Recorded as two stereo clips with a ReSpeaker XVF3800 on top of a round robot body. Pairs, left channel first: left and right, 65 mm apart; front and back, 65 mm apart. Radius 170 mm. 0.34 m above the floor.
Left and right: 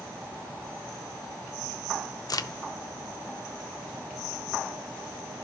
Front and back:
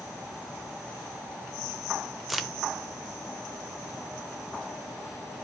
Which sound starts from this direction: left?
A crack, at 2.3 s.